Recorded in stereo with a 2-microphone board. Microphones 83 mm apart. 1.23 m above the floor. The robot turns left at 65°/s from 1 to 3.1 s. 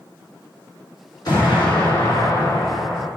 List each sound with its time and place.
1.2 s an explosion: 125° left, 3.5 m; by 3.1 s 5° left, 3.5 m